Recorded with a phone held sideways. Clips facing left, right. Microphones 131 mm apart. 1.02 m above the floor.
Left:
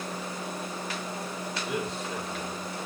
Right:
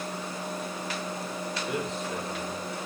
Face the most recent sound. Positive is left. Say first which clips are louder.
# even
turn(degrees=0)  # may be behind; listen again after turning